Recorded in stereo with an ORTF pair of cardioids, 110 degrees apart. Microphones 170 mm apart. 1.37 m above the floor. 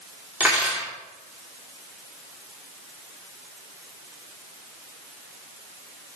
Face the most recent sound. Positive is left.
turn(degrees=-10)